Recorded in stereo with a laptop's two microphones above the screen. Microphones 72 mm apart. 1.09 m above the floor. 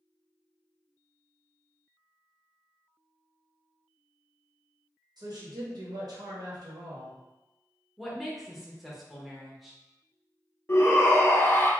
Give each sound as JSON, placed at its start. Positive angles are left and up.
{"t": 5.2, "sound": "a woman speaking", "side_deg": -70, "distance_m": 1.1}
{"t": 8.0, "sound": "a woman speaking", "side_deg": 0, "distance_m": 1.0}
{"t": 10.7, "sound": "a shout", "side_deg": 35, "distance_m": 0.5}